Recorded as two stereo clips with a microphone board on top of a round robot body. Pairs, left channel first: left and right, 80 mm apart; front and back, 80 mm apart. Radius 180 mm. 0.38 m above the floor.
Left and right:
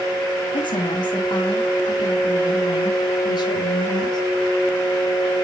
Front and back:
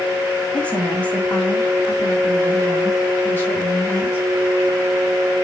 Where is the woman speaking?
75° left, 3 m; by 4.2 s 70° left, 7.5 m.